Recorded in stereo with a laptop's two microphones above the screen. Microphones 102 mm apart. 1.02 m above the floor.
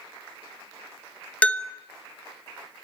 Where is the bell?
15° left (ahead or behind), 1.0 m.